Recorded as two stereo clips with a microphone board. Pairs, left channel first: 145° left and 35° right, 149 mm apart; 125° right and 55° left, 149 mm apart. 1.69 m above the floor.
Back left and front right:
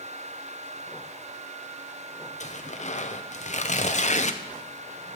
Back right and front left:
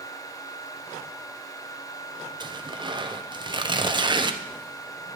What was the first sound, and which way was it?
Tearing paper, 115° left.